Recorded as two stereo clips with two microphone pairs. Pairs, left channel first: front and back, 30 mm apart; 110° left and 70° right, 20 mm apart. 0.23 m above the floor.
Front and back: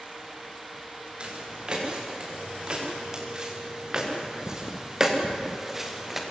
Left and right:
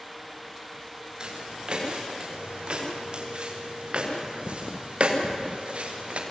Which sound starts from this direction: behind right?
Footsteps, at 1.2 s.